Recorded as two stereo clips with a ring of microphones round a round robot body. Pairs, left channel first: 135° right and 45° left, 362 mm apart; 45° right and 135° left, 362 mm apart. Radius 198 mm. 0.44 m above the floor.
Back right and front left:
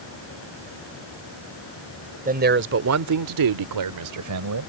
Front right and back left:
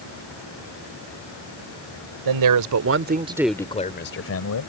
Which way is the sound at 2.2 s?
115° left.